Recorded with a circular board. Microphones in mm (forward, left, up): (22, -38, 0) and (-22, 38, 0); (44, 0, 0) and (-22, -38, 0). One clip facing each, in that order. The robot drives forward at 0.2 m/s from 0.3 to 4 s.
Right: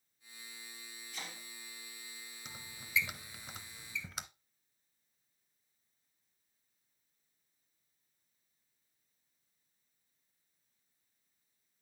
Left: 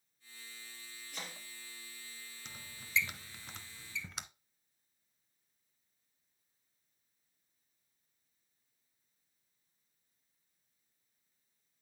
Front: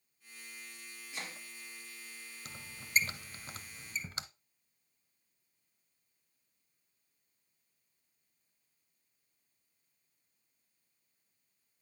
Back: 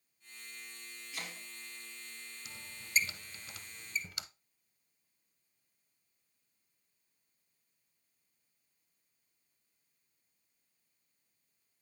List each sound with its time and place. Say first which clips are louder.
1.1 s chopping: left 1 dB, front 1 dB; 100° left, 3.5 m
2.5 s a squeak: right 2 dB, front 1 dB; 15° left, 1.0 m; by 4.2 s 30° left, 0.8 m